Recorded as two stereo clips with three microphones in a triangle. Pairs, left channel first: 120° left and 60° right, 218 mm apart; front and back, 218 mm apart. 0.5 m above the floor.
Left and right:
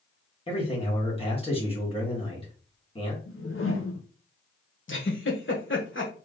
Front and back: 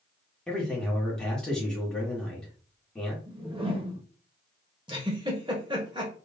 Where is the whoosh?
115° left, 0.8 m.